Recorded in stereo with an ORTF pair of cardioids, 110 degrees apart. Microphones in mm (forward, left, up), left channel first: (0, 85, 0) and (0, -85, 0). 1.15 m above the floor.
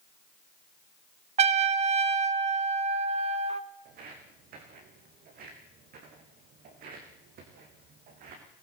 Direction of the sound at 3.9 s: 65° right.